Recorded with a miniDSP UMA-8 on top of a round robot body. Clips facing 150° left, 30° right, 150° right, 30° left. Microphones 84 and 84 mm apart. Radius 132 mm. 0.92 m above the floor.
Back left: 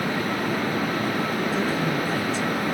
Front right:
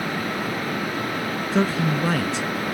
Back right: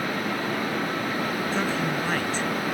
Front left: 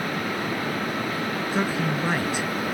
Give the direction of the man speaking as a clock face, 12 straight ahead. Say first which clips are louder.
Front right 2 dB, front left 3 dB; 2 o'clock.